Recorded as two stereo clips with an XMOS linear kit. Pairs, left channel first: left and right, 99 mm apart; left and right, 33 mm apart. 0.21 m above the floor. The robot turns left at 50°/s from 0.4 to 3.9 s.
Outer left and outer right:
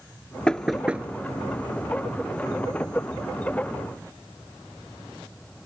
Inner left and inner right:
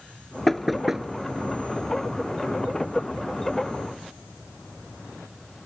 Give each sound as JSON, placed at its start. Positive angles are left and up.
{"t": 0.5, "sound": "knocking", "side_deg": 10}